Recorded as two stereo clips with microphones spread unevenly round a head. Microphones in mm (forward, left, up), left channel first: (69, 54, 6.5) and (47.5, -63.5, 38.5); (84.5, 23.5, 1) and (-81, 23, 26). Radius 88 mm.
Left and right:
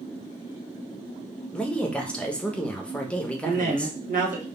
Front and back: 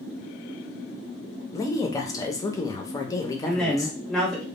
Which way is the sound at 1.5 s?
35° left.